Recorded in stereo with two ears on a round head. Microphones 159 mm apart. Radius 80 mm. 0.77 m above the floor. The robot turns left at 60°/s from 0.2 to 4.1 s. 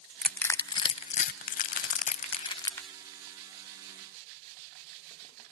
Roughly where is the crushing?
Centre.